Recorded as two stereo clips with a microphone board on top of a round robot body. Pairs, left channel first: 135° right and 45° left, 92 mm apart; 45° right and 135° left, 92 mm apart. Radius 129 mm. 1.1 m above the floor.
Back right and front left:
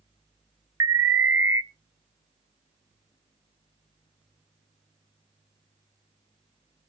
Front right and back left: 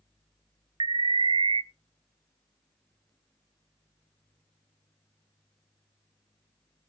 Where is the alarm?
105° left, 0.6 m.